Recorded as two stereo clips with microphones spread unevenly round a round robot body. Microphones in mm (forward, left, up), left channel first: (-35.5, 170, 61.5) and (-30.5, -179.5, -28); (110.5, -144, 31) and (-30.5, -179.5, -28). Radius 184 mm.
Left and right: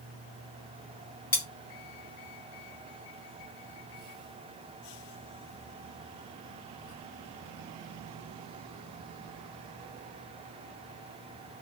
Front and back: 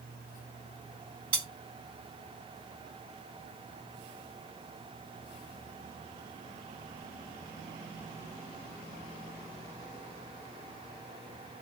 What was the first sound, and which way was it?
Cutlery clinking, 155° left.